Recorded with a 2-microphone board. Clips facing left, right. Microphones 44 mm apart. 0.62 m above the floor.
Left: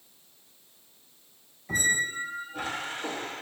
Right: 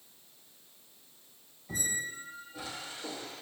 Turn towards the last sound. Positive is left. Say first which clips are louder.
# left 10 dB
turn(degrees=45)  # may be behind; listen again after turning